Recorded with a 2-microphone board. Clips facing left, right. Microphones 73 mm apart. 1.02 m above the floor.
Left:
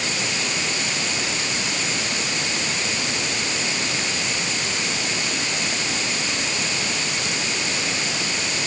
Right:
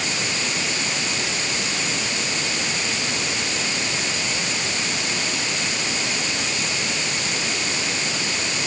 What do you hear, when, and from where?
Only background noise.